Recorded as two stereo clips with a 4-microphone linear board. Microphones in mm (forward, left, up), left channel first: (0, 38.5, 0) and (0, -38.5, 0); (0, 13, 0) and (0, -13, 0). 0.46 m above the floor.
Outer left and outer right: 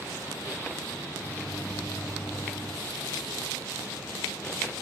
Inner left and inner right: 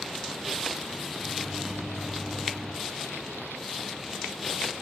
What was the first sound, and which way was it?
A microwave, 15° left (ahead or behind).